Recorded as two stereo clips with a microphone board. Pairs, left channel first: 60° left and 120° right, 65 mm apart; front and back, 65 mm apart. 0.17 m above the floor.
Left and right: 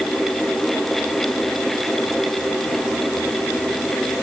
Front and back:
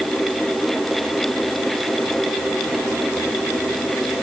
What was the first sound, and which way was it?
Only background noise.